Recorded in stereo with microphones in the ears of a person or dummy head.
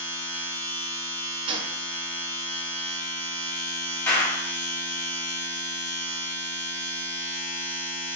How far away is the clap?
About 2.5 m.